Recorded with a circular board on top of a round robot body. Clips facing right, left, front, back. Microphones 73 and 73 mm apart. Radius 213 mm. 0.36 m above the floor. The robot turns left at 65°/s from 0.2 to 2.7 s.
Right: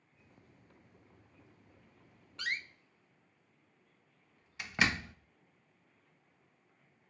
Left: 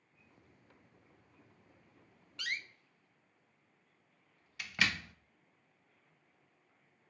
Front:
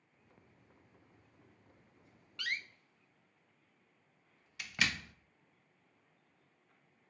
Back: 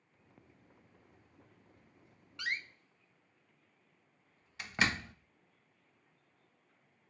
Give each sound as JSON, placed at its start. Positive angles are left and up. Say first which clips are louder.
{"t": 2.4, "sound": "a door slam", "louder": "right 2 dB, back 2 dB", "azimuth_deg": -120, "distance_m": 0.7}